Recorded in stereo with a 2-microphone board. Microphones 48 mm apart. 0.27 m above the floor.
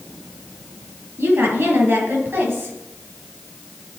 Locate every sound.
1.2 s a woman speaking: 55° right (ahead or behind), 4.5 m